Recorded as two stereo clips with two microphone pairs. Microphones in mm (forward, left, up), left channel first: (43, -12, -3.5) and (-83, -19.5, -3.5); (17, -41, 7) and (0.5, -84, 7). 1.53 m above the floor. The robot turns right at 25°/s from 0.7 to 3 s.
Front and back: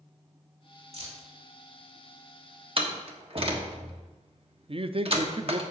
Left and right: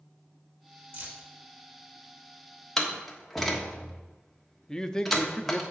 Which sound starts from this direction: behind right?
Keys jangling, at 0.9 s.